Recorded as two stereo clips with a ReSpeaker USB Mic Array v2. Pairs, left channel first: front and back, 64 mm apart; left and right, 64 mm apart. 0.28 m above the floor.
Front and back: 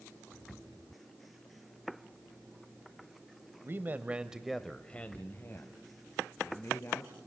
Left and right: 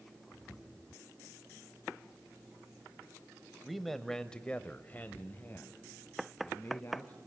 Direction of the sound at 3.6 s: 175° right.